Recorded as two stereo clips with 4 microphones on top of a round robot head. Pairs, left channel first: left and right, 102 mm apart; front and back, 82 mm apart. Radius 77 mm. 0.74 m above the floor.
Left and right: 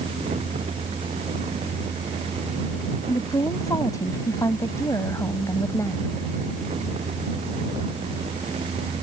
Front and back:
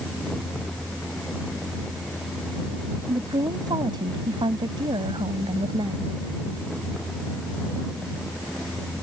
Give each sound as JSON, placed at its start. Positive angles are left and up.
{"t": 3.1, "sound": "a woman speaking", "azimuth_deg": 145}